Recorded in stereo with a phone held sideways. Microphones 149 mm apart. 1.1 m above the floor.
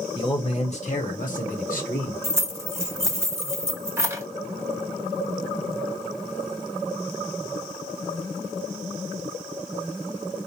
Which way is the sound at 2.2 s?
15° right (ahead or behind).